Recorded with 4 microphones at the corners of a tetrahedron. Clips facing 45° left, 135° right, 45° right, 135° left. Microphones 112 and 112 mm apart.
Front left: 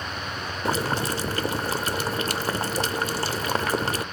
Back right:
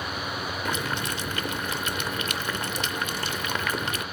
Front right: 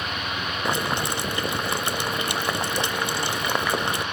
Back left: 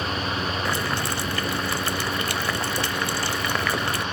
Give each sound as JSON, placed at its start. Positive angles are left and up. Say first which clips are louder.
{"t": 0.7, "sound": "boiling", "louder": "front left 7 dB, front right 1 dB", "azimuth_deg": 15, "distance_m": 0.5}